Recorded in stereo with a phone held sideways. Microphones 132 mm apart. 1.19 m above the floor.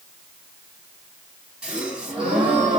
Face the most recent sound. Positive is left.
turn(degrees=-5)  # may be behind; listen again after turning